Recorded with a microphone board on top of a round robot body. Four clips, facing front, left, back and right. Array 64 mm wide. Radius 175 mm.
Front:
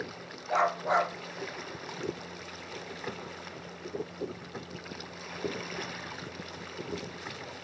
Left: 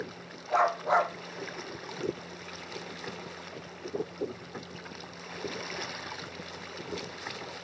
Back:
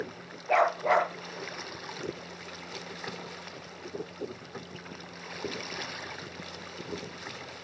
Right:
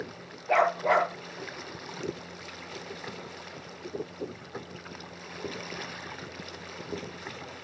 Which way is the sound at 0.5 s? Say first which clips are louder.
Right 2 dB, back 3 dB; 120° right.